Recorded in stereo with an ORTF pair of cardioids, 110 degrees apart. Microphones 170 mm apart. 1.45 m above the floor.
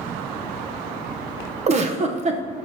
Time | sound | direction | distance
1.7 | a giggle | 40° right | 1.0 m